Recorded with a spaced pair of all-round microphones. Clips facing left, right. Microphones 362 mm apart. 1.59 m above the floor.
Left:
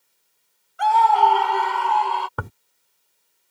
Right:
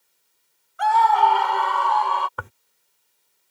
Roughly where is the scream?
Left.